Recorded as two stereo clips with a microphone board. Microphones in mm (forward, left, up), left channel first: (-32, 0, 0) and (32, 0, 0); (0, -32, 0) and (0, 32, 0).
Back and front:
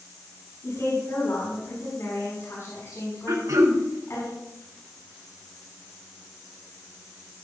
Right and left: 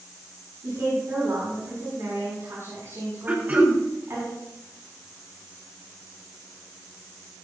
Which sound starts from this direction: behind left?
A woman speaking, at 0.6 s.